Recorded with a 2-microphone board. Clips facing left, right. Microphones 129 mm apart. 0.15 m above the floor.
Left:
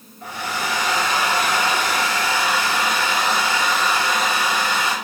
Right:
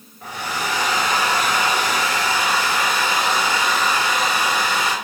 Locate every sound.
0.2 s a hair dryer: 15° right (ahead or behind), 1.1 m